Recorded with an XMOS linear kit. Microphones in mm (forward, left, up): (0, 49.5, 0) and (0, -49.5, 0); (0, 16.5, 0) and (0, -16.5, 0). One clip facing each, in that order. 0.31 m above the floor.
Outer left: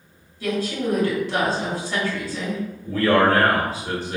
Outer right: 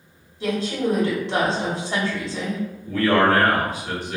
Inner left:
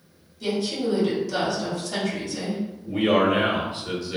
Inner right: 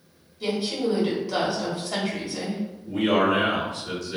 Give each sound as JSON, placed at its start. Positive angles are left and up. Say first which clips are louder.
{"t": 0.4, "sound": "a woman speaking", "louder": "outer right 1 dB, even", "side_deg": -25, "distance_m": 1.1}
{"t": 2.9, "sound": "a man speaking", "louder": "even, inner left 1 dB", "side_deg": 35, "distance_m": 1.1}